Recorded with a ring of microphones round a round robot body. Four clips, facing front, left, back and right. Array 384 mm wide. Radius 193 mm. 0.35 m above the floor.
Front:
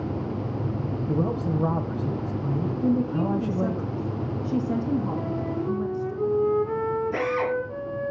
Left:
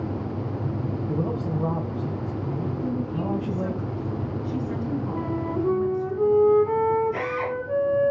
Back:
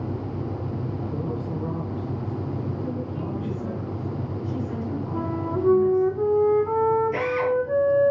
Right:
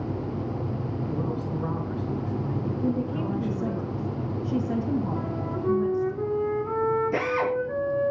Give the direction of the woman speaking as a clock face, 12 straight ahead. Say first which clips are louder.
Right 1 dB, front 7 dB; 1 o'clock.